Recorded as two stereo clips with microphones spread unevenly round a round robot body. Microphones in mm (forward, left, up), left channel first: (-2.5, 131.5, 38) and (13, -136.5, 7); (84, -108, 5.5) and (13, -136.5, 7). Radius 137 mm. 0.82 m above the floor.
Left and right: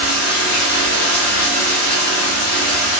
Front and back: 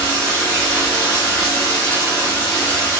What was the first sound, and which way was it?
Running water, 95° left.